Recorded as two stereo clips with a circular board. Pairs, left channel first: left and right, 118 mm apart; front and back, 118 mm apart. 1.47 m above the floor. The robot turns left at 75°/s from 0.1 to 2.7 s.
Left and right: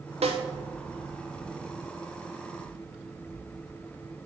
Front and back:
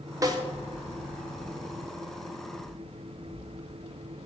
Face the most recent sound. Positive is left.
turn(degrees=55)